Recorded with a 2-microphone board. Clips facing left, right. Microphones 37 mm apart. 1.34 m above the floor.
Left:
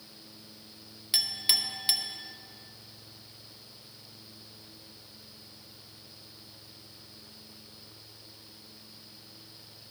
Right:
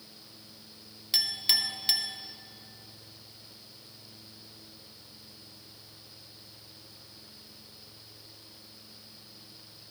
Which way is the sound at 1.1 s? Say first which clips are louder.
Right 1 dB; 5° left (ahead or behind).